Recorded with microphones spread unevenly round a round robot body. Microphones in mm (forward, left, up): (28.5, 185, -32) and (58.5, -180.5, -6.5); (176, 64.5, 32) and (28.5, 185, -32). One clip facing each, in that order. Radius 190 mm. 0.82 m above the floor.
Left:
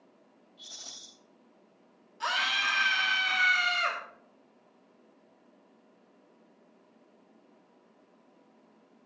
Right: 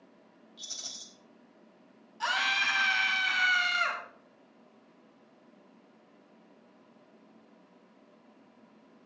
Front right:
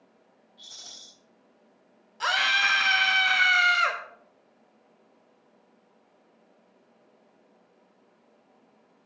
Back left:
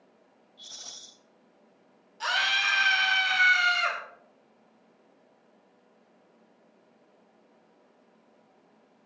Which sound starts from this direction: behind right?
A rattle, at 0.6 s.